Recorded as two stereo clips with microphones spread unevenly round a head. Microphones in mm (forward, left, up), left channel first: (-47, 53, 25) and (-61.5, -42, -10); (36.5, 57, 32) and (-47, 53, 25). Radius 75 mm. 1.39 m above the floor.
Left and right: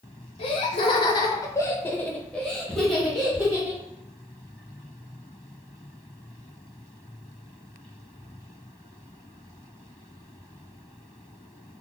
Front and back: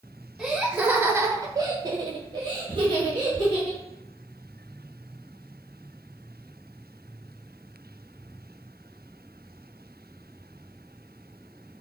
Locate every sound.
0.4 s laughter: 95° left, 1.0 m; by 3.8 s 155° right, 1.6 m